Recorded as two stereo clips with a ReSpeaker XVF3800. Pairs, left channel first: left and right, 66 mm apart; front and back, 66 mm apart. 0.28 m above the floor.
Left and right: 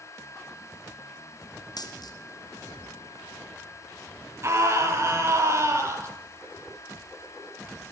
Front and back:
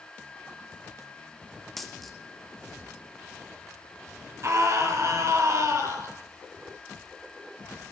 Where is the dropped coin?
85° left, 2 m.